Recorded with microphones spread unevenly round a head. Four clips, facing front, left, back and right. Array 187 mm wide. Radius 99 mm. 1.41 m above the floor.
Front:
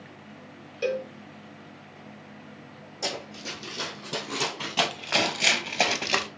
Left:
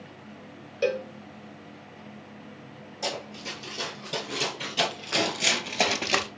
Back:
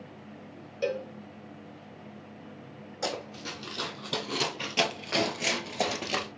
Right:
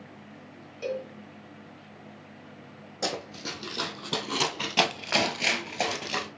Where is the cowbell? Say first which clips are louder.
Left 6 dB, front 3 dB; 60° left, 0.7 m.